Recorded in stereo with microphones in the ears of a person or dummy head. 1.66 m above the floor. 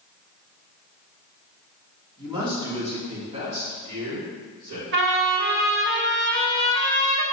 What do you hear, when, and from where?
2.2 s a man speaking: 25° right (ahead or behind), 2.5 m; by 4.8 s 55° right (ahead or behind), 4 m
4.9 s a trumpet: 65° right (ahead or behind), 1.5 m